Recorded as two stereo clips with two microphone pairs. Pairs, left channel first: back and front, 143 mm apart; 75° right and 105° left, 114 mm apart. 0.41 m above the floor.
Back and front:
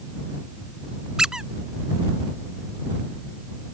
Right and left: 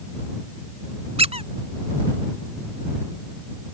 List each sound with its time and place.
1.2 s a squeak: 85° left